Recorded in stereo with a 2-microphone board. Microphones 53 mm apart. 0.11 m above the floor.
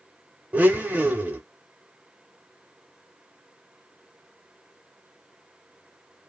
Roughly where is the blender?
Right.